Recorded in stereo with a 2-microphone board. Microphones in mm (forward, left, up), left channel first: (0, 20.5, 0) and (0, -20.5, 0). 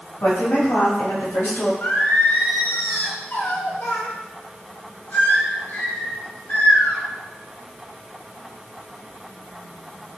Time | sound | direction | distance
0.2 | a woman speaking | 85° left | 4.5 m
1.8 | singing | 55° left (ahead or behind) | 1.8 m